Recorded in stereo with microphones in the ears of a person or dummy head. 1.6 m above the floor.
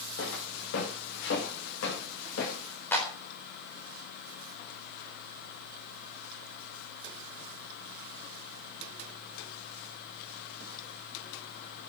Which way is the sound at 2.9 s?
10° left (ahead or behind).